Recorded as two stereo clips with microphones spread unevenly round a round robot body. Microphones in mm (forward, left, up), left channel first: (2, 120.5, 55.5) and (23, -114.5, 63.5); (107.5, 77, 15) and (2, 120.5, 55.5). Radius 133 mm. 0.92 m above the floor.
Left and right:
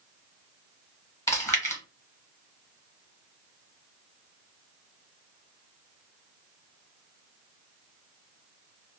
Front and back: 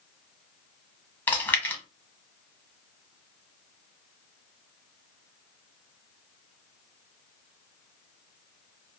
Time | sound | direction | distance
1.3 | chewing | 25° left | 1.1 m